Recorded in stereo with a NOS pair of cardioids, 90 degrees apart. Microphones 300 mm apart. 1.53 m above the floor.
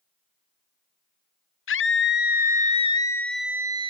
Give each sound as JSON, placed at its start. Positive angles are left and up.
{"t": 1.7, "sound": "a scream", "azimuth_deg": 45}